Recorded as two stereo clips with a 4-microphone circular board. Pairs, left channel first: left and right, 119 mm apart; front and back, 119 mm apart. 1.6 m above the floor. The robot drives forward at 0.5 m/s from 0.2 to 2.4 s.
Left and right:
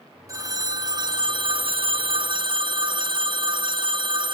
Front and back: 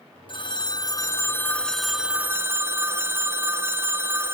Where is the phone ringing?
35° right, 1.1 m; by 4.3 s 115° right, 0.8 m.